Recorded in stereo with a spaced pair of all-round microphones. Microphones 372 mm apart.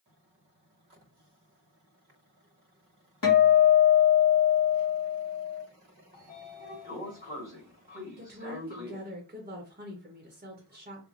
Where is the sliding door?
25° left (ahead or behind), 1.5 m.